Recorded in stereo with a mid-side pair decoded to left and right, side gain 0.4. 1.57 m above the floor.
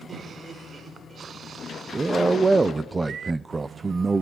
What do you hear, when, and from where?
0.1 s laughter: 45° right, 6 m
1.9 s a man speaking: 25° right, 0.6 m